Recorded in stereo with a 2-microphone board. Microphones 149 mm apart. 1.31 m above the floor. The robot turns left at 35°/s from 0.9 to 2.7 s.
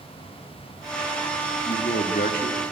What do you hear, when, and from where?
1.6 s a man speaking: 125° left, 2 m; by 2.6 s 90° left, 2 m